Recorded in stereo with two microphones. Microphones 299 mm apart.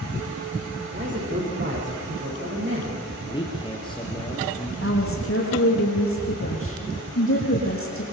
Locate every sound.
0.9 s a man speaking: 35° right (ahead or behind), 9 m
3.2 s a man speaking: 15° left (ahead or behind), 3 m
4.8 s a woman speaking: 45° left (ahead or behind), 7 m